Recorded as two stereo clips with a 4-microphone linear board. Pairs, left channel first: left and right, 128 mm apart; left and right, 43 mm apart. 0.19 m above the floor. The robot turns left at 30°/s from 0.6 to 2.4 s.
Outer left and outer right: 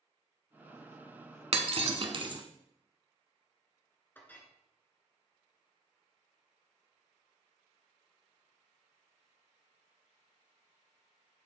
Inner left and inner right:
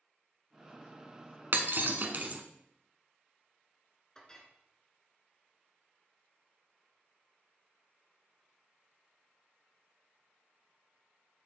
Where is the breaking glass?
55° right (ahead or behind), 0.9 m; by 2.4 s 40° right (ahead or behind), 0.9 m.